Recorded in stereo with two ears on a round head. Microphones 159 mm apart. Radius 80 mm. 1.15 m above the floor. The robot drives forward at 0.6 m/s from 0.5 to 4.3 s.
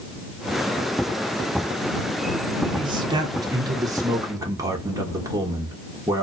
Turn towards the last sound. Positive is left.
turn(degrees=-20)  # may be behind; listen again after turning